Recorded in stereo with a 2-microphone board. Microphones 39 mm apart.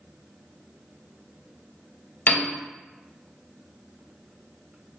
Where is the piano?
50° left (ahead or behind), 0.5 m.